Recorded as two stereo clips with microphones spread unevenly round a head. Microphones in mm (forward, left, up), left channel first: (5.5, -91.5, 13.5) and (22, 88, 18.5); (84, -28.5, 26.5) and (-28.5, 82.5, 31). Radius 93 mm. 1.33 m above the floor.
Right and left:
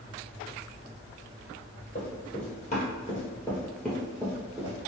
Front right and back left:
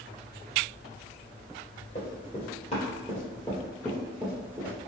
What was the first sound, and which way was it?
Running footsteps, 70° right.